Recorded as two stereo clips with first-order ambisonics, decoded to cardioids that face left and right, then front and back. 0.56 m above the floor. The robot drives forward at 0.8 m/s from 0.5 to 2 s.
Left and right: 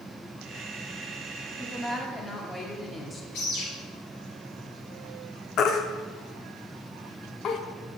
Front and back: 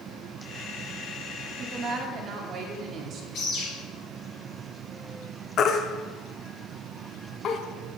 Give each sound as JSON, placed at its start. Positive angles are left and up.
{"t": 1.6, "sound": "a woman speaking", "azimuth_deg": 150, "distance_m": 0.9}
{"t": 3.3, "sound": "a bird", "azimuth_deg": 50, "distance_m": 3.5}
{"t": 5.6, "sound": "a baby crying", "azimuth_deg": 50, "distance_m": 0.6}